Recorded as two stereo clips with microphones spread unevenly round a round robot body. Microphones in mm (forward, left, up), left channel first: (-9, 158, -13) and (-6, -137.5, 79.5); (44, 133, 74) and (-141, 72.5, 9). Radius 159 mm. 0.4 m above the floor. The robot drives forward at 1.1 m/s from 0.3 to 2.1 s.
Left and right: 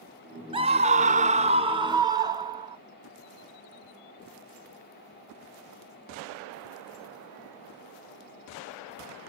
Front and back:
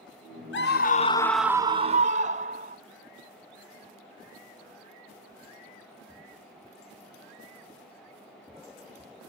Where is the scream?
5° right; by 2.8 s 175° right.